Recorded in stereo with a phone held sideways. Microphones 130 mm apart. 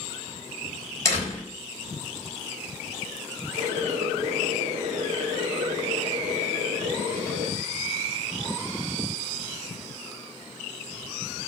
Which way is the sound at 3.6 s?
65° right (ahead or behind).